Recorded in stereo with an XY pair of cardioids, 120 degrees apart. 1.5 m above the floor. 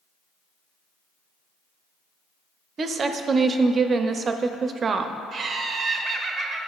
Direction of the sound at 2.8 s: 35° right.